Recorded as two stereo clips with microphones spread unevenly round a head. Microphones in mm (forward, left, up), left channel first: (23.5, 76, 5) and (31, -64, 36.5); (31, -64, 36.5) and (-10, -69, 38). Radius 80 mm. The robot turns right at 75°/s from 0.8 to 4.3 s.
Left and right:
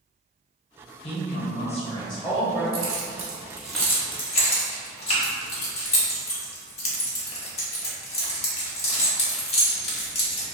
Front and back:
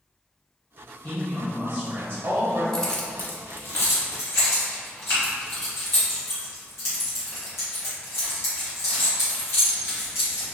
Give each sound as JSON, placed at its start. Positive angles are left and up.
{"t": 1.0, "sound": "a woman speaking", "azimuth_deg": 65, "distance_m": 0.8}
{"t": 2.7, "sound": "keys jangling", "azimuth_deg": -70, "distance_m": 1.0}